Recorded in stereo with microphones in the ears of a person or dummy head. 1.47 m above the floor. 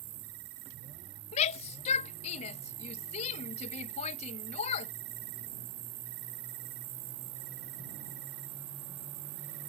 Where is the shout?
40° left (ahead or behind).